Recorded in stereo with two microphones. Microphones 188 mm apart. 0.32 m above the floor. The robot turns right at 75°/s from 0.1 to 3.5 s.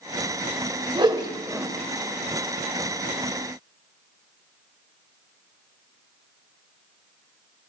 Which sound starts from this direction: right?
A whoosh, at 0.9 s.